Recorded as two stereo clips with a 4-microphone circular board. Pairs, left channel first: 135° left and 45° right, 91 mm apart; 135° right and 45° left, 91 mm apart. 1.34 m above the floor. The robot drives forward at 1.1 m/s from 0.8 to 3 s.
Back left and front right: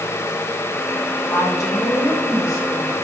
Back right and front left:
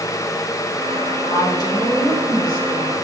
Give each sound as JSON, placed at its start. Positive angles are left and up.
{"t": 1.3, "sound": "a woman speaking", "azimuth_deg": -170, "distance_m": 3.5}